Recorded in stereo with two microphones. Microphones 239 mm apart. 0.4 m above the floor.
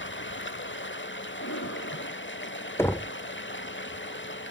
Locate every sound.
0.0 s running water: 50° left (ahead or behind), 0.9 m
1.4 s breathing: 75° left (ahead or behind), 7 m
2.8 s knocking: 10° left (ahead or behind), 0.6 m